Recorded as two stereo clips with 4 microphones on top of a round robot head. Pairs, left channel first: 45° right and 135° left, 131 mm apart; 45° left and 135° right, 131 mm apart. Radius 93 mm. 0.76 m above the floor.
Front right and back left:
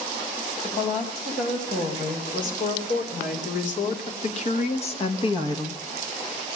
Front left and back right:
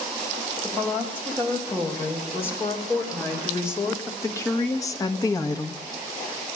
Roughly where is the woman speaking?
Ahead right.